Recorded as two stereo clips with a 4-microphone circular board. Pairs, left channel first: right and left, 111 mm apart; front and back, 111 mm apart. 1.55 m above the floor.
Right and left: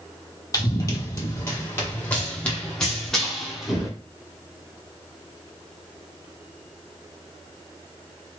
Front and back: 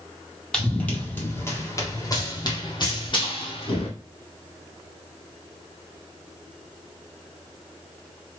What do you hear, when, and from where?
0.5 s running footsteps: 75° right, 1.8 m; by 3.9 s straight ahead, 2.5 m